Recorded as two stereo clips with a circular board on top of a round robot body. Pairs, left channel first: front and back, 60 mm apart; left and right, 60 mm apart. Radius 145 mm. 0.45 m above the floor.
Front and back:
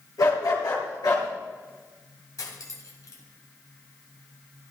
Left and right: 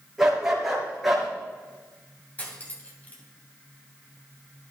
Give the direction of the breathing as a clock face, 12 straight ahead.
I don't hear breathing.